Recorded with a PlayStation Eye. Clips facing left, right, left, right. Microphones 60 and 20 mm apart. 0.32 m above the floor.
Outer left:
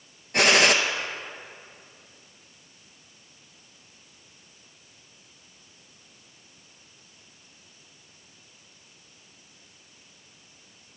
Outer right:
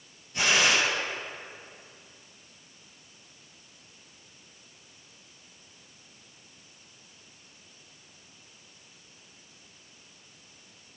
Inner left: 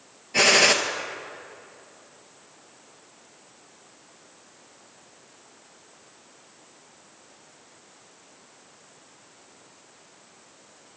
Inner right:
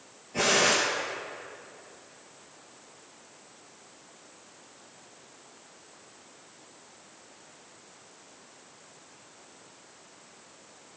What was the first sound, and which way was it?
A gunshot, 80° left.